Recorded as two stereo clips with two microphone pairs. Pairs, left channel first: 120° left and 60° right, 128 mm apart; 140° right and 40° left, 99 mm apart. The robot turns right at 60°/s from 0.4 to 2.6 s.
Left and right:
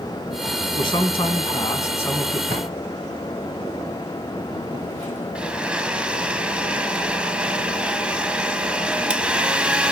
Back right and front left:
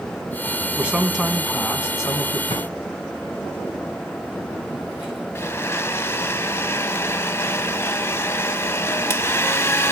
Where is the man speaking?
105° left, 1.8 m; by 2.4 s 155° right, 1.8 m.